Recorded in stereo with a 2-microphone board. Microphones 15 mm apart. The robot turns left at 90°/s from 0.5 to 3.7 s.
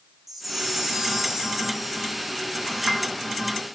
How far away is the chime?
About 0.8 m.